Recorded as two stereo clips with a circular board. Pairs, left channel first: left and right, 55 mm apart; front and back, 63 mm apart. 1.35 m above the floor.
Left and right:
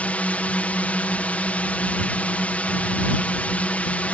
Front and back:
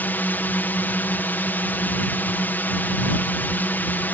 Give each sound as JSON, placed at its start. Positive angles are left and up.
{"t": 0.0, "sound": "a drone", "azimuth_deg": 40}